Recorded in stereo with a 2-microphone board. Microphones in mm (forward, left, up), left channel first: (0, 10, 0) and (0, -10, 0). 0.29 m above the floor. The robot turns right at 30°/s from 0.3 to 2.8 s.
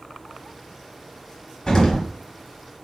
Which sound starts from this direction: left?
An explosion, at 1.7 s.